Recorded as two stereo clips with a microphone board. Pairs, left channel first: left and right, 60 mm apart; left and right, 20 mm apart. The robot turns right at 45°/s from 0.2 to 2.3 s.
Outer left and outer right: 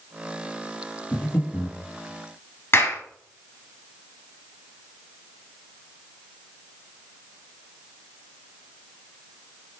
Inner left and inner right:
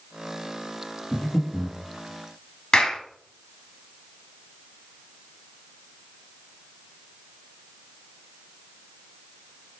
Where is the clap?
35° left (ahead or behind), 1.1 m.